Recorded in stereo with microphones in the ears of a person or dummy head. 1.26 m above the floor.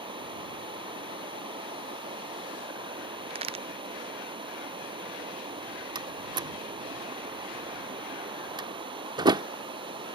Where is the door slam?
25° right (ahead or behind).